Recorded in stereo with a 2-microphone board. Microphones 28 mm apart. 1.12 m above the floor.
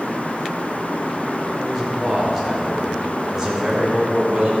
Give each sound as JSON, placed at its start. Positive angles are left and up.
{"t": 1.6, "sound": "a man speaking", "side_deg": 5, "distance_m": 4.5}